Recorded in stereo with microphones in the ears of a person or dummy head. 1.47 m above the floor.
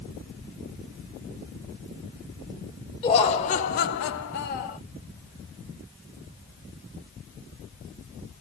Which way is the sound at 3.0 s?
30° left (ahead or behind).